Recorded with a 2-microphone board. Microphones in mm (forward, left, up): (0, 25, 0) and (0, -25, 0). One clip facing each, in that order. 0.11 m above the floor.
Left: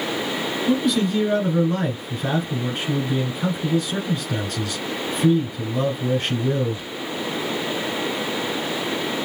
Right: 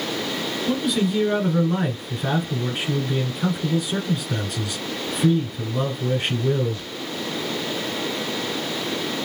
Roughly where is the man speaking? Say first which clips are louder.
Left 2 dB; centre.